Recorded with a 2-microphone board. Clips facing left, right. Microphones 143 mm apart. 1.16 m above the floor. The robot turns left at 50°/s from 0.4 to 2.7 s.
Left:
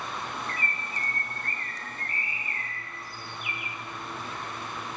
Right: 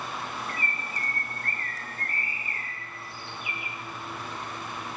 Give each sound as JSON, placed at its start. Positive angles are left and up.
{"t": 0.5, "sound": "a bird", "azimuth_deg": -30, "distance_m": 0.5}